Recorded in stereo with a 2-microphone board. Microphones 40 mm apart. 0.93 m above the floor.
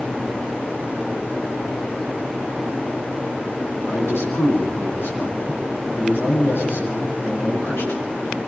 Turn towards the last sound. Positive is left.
turn(degrees=85)